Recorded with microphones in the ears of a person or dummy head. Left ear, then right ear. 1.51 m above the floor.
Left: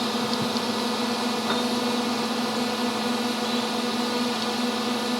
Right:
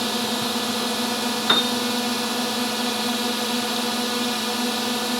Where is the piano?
80° right.